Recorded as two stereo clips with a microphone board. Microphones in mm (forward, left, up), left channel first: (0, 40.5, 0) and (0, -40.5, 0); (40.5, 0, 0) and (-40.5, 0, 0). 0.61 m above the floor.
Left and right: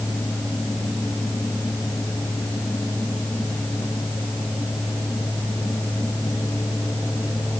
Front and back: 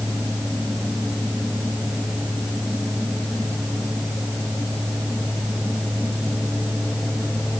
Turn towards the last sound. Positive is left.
No sound to turn to.